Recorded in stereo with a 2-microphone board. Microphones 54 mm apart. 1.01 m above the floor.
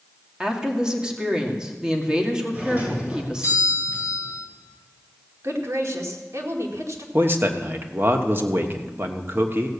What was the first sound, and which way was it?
A woman speaking, 15° right (ahead or behind).